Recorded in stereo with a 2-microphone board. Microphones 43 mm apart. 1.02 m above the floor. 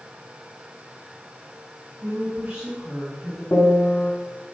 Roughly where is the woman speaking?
Right.